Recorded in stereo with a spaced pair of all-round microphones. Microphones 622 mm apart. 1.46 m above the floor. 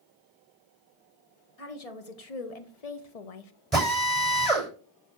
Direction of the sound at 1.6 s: 65° left (ahead or behind).